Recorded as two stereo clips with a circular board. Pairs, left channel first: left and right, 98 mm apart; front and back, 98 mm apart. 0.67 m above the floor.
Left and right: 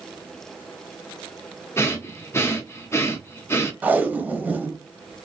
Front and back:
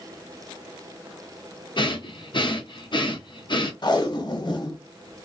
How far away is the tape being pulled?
About 0.6 m.